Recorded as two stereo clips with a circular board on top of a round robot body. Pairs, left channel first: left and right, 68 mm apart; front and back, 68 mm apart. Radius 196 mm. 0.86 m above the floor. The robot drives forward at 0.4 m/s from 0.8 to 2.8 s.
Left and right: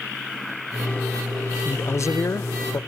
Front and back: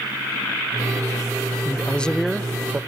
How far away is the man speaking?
About 0.6 m.